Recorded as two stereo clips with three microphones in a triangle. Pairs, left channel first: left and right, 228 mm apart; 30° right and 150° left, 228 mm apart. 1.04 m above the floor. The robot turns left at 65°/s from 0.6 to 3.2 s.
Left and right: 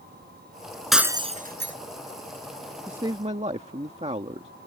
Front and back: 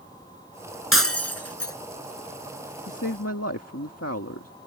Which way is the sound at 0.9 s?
Straight ahead.